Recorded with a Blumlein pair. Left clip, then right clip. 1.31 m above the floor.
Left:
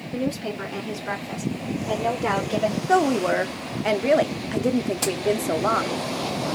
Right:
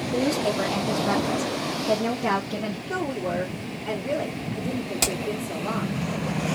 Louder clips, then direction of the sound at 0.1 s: Right 4 dB; 45° right.